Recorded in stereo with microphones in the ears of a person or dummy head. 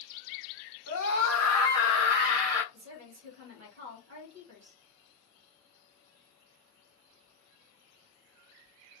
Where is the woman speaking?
55° right (ahead or behind), 1.0 m.